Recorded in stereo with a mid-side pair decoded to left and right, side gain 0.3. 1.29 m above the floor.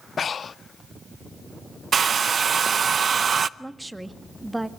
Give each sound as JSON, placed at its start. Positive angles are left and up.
{"t": 0.2, "sound": "breathing", "azimuth_deg": 60, "distance_m": 0.6}
{"t": 1.9, "sound": "a hair dryer", "azimuth_deg": -60, "distance_m": 0.7}
{"t": 3.6, "sound": "a woman speaking", "azimuth_deg": -15, "distance_m": 1.9}